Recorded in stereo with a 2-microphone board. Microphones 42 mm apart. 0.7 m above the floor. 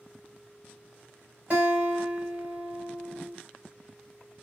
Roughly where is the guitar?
Right.